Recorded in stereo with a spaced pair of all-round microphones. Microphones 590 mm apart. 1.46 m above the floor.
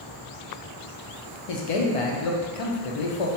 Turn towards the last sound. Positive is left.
turn(degrees=65)  # may be behind; listen again after turning